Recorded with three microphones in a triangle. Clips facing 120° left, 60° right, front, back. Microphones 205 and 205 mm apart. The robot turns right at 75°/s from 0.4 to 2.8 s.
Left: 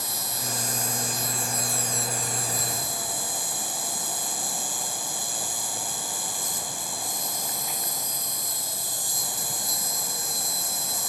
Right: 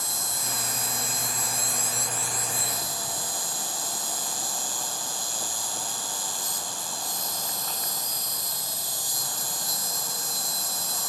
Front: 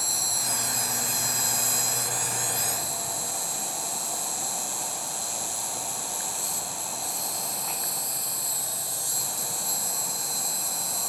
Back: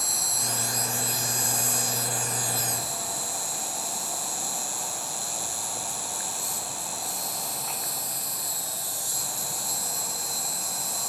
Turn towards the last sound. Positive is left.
turn(degrees=90)